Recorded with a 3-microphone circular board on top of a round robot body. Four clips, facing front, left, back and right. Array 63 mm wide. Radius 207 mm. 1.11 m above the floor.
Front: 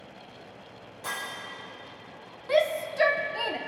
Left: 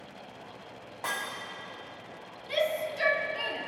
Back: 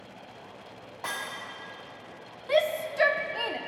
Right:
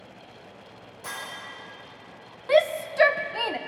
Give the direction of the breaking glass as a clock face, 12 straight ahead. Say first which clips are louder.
Left 3 dB, even; 8 o'clock.